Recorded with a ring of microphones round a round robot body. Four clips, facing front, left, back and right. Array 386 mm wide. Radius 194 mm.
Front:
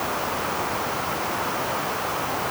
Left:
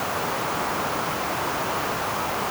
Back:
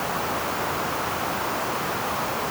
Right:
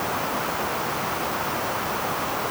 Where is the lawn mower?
I don't hear a lawn mower.